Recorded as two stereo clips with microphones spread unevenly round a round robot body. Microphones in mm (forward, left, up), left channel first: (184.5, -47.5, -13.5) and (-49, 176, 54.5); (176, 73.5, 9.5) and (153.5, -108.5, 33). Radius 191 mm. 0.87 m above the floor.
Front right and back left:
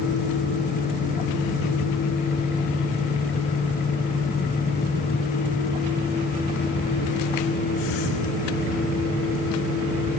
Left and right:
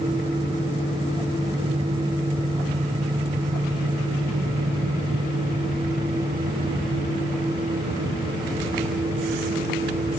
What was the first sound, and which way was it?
Only background noise.